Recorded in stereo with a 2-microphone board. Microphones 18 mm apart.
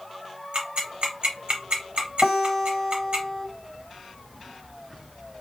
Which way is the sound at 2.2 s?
Centre (ahead or behind).